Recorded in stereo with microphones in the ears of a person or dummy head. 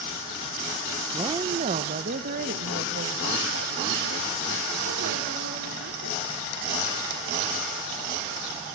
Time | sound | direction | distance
1.1 | a woman speaking | 20° right (ahead or behind) | 0.9 m